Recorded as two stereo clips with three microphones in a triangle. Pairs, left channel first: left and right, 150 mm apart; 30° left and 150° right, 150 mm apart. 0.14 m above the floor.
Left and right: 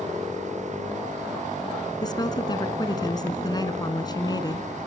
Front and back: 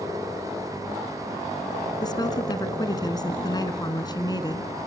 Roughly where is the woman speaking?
Ahead left.